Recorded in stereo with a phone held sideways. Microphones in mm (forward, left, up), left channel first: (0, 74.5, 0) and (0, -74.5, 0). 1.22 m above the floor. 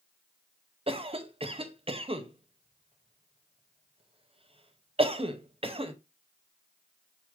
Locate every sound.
0.9 s a cough: 40° right (ahead or behind), 0.7 m